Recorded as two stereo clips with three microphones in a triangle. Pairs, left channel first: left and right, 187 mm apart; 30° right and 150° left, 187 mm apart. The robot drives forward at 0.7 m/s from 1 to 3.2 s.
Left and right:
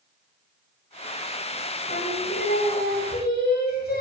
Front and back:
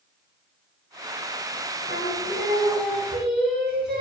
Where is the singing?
120° left, 9.5 m; by 4.0 s 125° left, 10 m.